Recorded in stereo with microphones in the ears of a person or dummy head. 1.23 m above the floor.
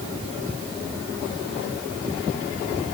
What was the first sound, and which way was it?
Only background noise.